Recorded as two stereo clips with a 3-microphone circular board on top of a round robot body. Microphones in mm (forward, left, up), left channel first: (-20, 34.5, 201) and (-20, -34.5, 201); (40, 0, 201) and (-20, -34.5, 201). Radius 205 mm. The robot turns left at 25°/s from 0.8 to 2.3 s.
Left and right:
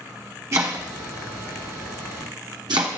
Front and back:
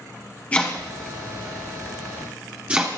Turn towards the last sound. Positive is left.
turn(degrees=-80)